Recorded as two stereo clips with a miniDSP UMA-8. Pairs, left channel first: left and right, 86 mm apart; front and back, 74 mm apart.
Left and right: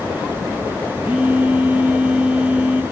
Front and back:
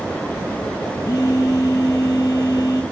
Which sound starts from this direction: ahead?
A phone buzzing, at 1.0 s.